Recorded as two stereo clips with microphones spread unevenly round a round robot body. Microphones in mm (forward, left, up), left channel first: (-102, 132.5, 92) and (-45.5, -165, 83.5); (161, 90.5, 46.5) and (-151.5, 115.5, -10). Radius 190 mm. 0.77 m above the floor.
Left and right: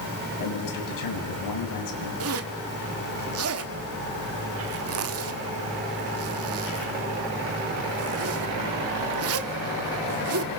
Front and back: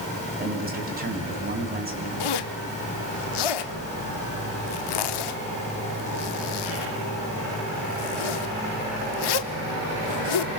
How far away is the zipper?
About 1.2 m.